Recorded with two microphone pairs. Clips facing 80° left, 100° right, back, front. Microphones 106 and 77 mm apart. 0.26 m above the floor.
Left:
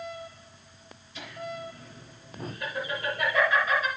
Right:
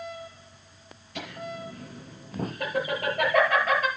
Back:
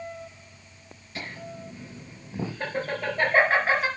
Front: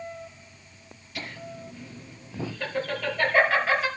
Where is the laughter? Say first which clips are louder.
Right 1 dB, even; 125° right, 5 m.